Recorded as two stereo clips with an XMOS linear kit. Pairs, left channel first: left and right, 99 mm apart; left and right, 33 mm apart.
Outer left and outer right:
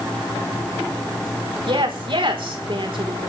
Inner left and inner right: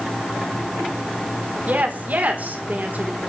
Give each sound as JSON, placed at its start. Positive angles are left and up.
{"t": 1.7, "sound": "a woman speaking", "side_deg": -60, "distance_m": 4.0}